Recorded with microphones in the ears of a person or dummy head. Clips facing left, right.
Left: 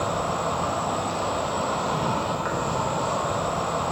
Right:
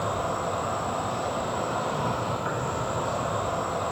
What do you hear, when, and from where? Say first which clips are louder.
0.0 s an insect: left 2 dB; 70° left (ahead or behind), 1.1 m